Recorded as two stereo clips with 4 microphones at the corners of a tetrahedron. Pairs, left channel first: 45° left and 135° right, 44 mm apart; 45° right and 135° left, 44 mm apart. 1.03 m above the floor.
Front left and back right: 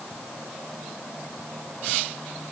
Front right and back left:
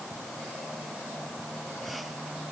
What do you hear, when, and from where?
Only background noise.